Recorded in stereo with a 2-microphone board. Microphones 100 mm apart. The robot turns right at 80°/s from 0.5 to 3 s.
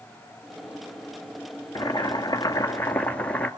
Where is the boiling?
65° left, 2 m; by 3.5 s 165° left, 2 m.